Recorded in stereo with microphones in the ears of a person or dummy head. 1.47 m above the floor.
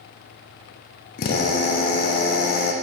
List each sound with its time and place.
1.2 s a drill: 50° left (ahead or behind), 0.6 m